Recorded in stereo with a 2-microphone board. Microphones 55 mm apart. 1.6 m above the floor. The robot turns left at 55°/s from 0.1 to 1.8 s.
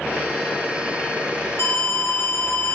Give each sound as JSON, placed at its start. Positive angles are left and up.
{"t": 1.6, "sound": "an alarm", "side_deg": 50, "distance_m": 5.0}